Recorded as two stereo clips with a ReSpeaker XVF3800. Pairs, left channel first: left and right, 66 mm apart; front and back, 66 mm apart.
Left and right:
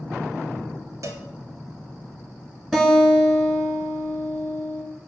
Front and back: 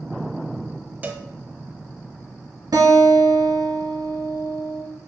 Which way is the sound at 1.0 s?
115° right.